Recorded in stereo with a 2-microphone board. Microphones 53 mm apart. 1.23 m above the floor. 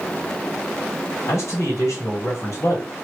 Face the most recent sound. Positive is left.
turn(degrees=60)  # may be behind; listen again after turning